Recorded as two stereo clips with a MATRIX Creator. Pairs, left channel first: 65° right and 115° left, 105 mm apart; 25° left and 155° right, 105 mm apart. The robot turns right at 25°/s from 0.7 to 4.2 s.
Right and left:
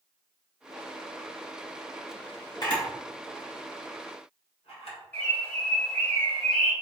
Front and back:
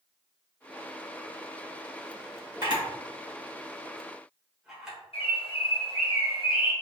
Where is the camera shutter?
110° right, 1.6 m; by 5.0 s 70° right, 1.6 m.